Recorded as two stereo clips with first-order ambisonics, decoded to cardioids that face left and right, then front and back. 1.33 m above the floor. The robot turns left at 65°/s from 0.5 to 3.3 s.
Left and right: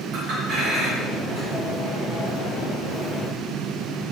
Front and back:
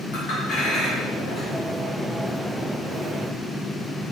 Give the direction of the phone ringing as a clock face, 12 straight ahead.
I don't hear a phone ringing.